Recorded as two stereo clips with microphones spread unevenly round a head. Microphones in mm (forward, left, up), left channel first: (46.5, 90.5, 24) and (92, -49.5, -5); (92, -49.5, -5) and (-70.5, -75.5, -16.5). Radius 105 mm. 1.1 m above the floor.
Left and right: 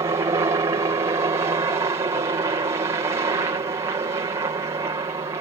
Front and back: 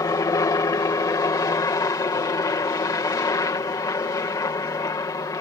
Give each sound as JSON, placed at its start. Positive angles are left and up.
{"t": 0.0, "sound": "a helicopter", "azimuth_deg": -45}